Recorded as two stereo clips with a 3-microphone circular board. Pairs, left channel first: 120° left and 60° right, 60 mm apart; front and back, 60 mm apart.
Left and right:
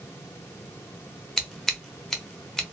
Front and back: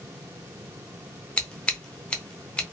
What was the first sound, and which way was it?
Scissors, 45° left.